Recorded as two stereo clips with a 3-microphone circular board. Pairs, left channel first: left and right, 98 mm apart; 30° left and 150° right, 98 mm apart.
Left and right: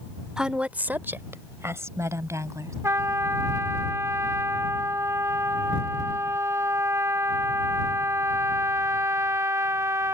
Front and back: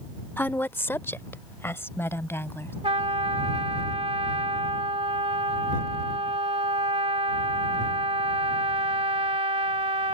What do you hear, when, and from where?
0.4 s a woman speaking: 15° right; by 2.7 s 35° right
2.8 s a trumpet: 150° right